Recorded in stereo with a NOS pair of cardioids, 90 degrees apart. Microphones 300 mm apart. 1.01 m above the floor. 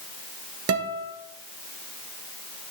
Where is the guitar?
50° right, 2.0 m.